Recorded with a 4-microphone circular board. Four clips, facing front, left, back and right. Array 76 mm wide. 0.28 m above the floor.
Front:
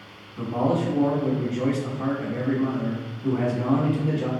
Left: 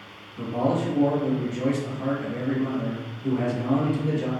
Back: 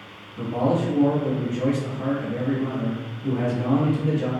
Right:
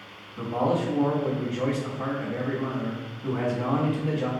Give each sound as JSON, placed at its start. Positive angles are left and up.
{"t": 0.4, "sound": "a man speaking", "azimuth_deg": -80, "distance_m": 1.1}